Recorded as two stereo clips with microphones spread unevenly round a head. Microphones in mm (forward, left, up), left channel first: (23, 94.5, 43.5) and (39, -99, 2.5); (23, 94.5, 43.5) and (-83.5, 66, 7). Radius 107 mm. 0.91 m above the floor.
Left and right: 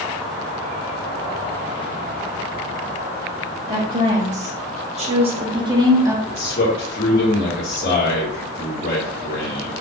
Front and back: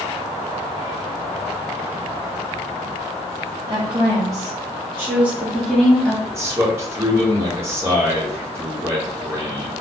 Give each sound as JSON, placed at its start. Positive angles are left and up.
{"t": 3.7, "sound": "a woman speaking", "azimuth_deg": -125, "distance_m": 1.8}
{"t": 6.2, "sound": "a man speaking", "azimuth_deg": 140, "distance_m": 1.7}